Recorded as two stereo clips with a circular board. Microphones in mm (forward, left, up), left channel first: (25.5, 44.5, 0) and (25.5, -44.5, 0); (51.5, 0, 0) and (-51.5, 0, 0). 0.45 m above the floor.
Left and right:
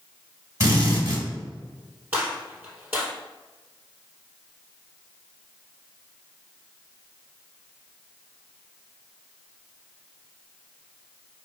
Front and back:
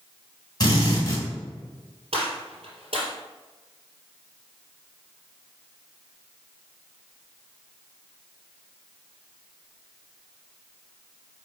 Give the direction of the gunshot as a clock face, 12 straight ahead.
5 o'clock.